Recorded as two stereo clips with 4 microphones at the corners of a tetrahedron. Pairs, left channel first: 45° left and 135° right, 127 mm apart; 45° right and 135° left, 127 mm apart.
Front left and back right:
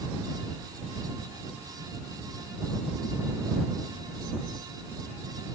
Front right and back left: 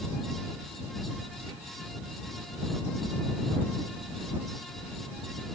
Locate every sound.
Only background noise.